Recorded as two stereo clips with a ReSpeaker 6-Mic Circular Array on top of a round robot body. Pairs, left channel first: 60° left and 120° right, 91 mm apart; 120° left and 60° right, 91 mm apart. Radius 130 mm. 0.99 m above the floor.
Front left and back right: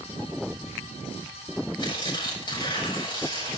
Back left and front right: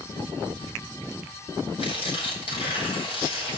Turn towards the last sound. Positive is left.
turn(degrees=95)